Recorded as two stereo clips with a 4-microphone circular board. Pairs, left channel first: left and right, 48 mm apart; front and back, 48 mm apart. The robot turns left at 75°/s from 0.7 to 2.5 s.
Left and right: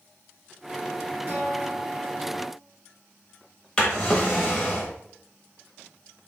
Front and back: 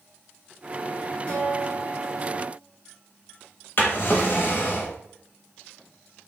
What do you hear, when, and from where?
1.3 s a guitar: 55° right, 1.3 m; by 2.5 s 150° right, 1.3 m
3.8 s a drawer: 20° left, 0.8 m